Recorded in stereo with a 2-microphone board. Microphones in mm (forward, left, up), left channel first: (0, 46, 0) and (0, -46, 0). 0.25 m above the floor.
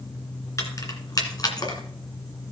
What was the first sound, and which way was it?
Keys jangling, 35° left (ahead or behind).